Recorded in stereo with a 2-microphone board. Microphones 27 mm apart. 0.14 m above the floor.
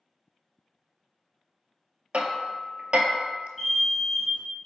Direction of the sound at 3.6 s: 5° right (ahead or behind).